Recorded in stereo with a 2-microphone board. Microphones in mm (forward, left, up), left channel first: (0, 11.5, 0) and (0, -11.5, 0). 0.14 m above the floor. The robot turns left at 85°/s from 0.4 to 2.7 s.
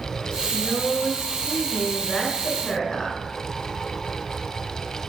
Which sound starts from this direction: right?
A woman speaking, at 0.5 s.